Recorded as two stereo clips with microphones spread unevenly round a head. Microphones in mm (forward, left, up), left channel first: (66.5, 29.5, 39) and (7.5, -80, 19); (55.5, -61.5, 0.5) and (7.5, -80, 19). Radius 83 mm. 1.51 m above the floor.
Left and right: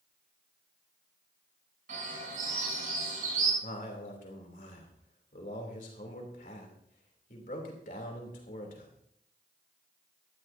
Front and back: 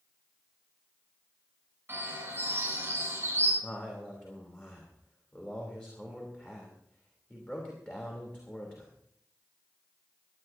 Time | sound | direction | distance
1.9 | a bird | 115° right | 9 m
3.6 | a man speaking | 100° left | 3.5 m